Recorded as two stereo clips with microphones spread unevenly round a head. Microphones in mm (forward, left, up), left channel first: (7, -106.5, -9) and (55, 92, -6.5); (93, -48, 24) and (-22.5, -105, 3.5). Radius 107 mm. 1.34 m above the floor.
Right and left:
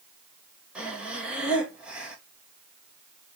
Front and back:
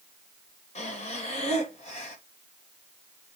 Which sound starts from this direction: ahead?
Breathing, at 0.8 s.